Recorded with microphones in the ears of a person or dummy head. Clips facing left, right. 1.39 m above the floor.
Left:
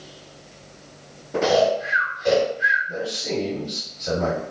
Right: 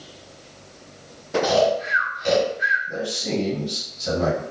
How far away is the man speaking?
About 1.4 m.